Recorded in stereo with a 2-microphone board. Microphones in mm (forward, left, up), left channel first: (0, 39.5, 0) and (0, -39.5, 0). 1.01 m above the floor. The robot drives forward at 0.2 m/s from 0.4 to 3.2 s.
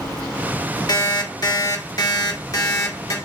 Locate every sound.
0.9 s an alarm clock: 55° left (ahead or behind), 0.8 m; by 3.1 s 50° left (ahead or behind), 0.9 m